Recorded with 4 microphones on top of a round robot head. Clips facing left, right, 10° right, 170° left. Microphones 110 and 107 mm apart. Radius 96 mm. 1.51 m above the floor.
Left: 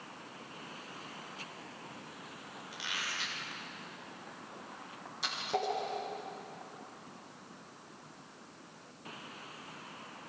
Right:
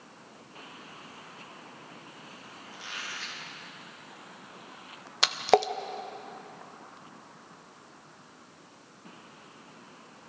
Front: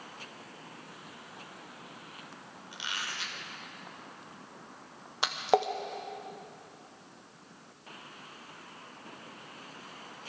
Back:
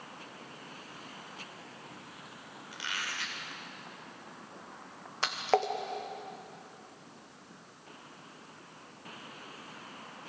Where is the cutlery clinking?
I don't hear cutlery clinking.